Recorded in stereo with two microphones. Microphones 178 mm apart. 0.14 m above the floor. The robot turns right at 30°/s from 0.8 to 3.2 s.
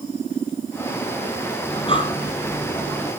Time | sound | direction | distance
1.7 | breathing | 35° left (ahead or behind) | 1.7 m